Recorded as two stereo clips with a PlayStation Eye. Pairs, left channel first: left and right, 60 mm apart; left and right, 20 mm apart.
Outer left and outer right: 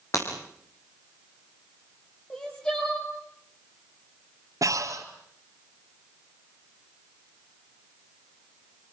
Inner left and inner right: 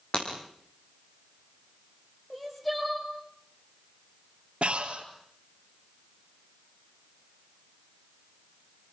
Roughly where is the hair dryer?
No hair dryer in this recording.